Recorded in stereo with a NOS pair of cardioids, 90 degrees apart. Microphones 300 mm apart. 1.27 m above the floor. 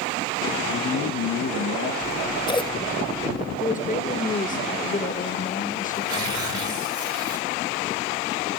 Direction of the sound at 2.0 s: 15° left.